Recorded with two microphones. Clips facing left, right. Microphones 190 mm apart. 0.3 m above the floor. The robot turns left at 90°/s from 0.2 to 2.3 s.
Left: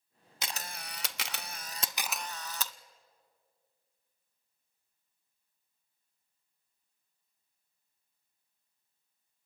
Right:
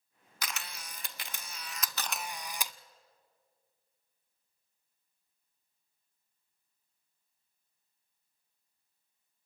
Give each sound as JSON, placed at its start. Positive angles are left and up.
{"t": 0.4, "sound": "a camera shutter", "side_deg": 25, "distance_m": 0.6}